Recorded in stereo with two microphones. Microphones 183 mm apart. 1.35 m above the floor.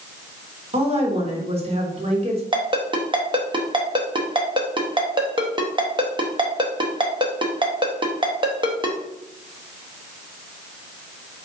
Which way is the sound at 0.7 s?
35° right (ahead or behind).